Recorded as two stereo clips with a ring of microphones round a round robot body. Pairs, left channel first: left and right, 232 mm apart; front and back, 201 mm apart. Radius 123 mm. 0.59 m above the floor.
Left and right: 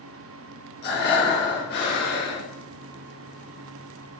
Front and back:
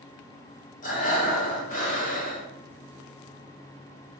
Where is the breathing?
45° left, 2 m.